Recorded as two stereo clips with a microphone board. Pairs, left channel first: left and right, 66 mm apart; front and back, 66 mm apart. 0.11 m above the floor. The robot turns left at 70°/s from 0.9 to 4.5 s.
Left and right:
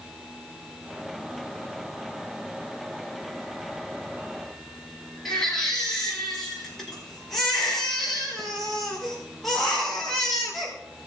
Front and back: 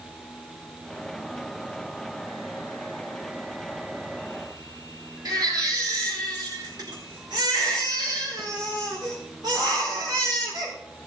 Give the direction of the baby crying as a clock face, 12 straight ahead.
6 o'clock.